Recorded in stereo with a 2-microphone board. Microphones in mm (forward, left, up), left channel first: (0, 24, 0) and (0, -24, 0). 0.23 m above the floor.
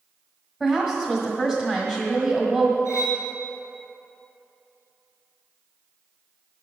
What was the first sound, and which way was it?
A woman speaking, 10° left (ahead or behind).